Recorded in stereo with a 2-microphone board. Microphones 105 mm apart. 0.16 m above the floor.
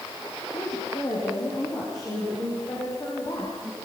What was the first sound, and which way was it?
A woman speaking, 40° left (ahead or behind).